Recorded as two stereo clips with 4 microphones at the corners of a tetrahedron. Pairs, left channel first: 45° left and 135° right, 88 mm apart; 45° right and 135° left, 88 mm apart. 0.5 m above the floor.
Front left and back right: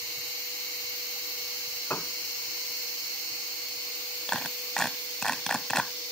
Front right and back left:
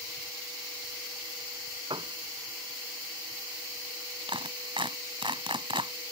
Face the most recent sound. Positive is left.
turn(degrees=130)